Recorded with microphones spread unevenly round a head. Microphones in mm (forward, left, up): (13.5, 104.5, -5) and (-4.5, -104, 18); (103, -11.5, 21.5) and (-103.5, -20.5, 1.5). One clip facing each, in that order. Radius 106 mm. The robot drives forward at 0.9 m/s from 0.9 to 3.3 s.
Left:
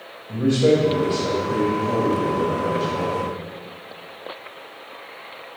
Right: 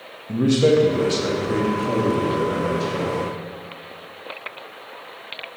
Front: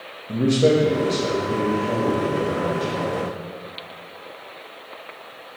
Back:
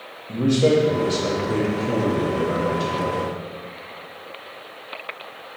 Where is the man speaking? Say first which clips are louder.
Right 1 dB, even; 70° right, 0.6 m; by 3.3 s 170° right, 2 m.